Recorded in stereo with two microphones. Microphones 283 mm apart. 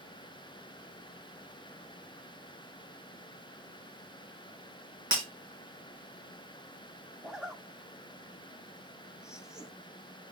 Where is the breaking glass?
70° right (ahead or behind), 4 m.